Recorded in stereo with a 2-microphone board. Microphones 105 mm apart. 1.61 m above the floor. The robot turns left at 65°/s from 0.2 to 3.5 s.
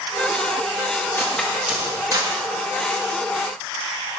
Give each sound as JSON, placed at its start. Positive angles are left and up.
{"t": 1.2, "sound": "cutlery clinking", "side_deg": 20, "distance_m": 1.5}